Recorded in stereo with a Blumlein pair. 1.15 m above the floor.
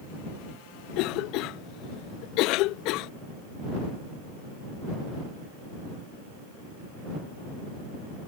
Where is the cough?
40° left.